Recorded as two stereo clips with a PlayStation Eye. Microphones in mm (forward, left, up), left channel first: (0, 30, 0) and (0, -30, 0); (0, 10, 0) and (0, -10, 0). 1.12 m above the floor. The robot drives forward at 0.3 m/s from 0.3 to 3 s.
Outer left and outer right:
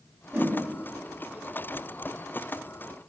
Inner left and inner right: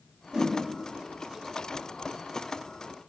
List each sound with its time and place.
0.3 s a whoosh: 30° right (ahead or behind), 1.1 m